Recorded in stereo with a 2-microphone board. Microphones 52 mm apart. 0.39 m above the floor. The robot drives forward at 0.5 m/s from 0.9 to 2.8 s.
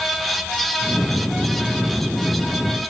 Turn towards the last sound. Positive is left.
No sound to turn to.